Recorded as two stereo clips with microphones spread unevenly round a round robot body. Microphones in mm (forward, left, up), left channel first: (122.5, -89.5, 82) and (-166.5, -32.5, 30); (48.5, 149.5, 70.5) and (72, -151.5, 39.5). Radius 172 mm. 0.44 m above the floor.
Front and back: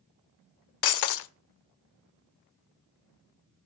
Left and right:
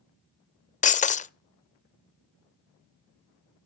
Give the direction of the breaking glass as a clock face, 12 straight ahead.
11 o'clock.